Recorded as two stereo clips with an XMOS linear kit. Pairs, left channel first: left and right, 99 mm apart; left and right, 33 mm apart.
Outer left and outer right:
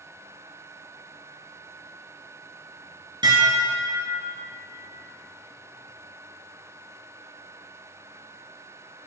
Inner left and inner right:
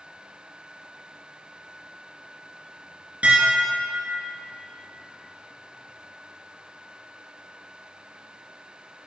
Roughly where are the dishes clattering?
Right.